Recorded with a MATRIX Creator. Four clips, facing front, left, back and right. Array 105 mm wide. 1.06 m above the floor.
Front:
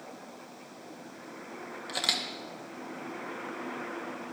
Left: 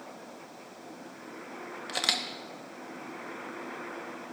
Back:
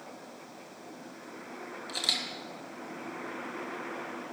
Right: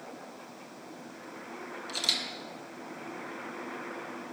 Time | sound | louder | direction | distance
1.9 | a camera shutter | left 6 dB, front 4 dB | 70° left | 0.9 m